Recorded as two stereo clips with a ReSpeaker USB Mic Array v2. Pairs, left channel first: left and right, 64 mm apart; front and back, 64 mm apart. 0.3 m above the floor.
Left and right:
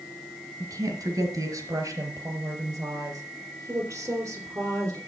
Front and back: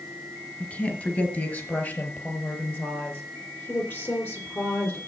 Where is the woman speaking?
65° right, 4.5 m; by 5.0 s 50° right, 6.5 m.